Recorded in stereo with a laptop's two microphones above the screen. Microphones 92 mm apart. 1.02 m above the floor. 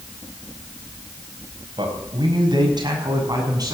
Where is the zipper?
I don't hear a zipper.